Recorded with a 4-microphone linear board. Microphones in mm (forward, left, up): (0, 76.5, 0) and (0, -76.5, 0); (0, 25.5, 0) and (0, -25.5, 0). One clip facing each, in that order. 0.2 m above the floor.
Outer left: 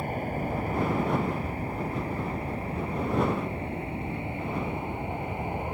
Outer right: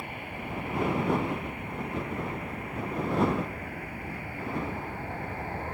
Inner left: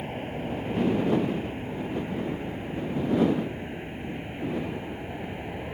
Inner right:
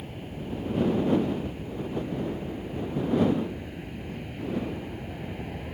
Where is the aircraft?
40° left (ahead or behind); by 5.7 s 15° left (ahead or behind).